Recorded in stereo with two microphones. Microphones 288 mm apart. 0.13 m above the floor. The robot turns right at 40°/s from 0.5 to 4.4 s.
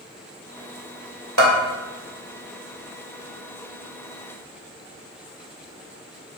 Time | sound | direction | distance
1.4 | a bell | 70° right (ahead or behind) | 1.2 m